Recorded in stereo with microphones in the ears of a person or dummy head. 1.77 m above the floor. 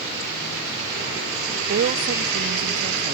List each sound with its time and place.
1.7 s a woman speaking: 45° right (ahead or behind)